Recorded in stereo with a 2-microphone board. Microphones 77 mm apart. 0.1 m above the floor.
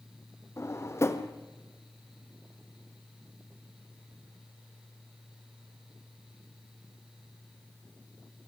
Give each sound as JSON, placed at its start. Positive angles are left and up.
{"t": 0.6, "sound": "a drawer", "side_deg": 40, "distance_m": 1.5}